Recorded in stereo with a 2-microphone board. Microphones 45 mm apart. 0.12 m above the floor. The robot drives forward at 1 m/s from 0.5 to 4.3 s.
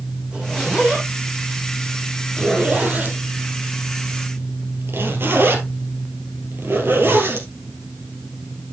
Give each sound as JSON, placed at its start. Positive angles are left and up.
{"t": 0.3, "sound": "a zipper", "side_deg": -25, "distance_m": 5.0}